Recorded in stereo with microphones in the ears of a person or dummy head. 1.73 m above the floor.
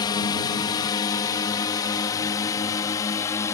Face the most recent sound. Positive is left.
turn(degrees=20)  # may be behind; listen again after turning